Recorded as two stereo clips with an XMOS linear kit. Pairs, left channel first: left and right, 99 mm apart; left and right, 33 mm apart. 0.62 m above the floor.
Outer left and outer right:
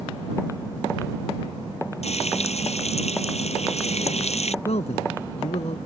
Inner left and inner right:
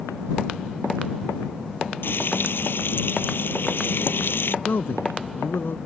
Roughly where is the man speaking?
Left.